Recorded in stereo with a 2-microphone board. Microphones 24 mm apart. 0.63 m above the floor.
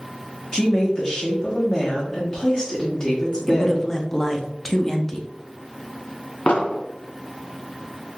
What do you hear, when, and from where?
0.5 s a woman speaking: 30° left (ahead or behind), 1.0 m
3.5 s a man speaking: 20° left (ahead or behind), 0.5 m
6.5 s an explosion: 70° left (ahead or behind), 0.6 m